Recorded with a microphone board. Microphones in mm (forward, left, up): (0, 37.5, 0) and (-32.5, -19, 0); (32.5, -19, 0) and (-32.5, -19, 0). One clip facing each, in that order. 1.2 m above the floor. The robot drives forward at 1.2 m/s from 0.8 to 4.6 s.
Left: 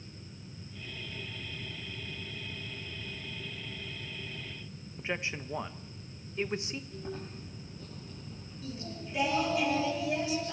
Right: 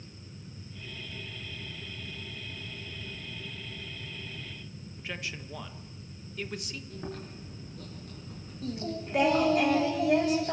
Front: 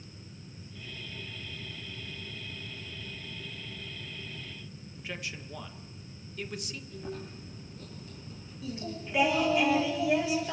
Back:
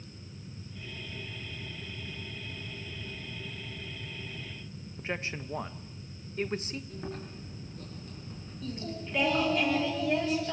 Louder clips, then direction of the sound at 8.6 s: Right 7 dB, even; 80° right.